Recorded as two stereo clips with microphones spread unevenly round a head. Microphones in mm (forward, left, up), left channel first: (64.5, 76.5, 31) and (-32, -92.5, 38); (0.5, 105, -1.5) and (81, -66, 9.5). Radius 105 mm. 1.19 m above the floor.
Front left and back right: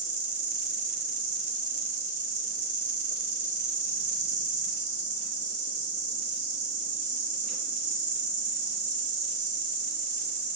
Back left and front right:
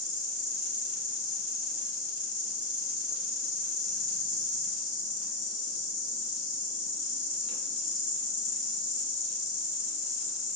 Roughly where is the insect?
Behind.